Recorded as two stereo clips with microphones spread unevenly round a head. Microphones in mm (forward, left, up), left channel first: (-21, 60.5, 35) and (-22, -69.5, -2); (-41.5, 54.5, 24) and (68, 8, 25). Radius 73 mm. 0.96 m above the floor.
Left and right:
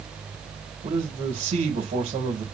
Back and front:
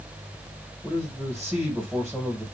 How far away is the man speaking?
About 1.4 m.